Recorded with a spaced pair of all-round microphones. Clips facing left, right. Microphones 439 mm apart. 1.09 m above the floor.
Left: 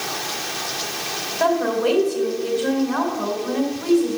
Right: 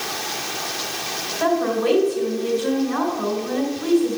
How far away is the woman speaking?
About 4.5 m.